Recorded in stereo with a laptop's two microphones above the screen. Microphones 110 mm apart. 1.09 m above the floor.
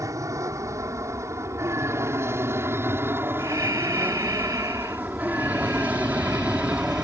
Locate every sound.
0.0 s an aircraft: 30° right (ahead or behind); by 7.0 s 10° right (ahead or behind)
3.4 s breathing: 35° right (ahead or behind)